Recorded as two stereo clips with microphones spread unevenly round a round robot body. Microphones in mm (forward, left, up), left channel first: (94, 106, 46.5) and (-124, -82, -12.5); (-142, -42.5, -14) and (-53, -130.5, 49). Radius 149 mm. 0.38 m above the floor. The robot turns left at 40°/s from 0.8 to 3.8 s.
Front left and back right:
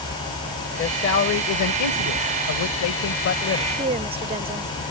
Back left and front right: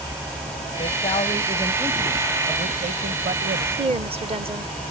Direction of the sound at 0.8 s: 100° left.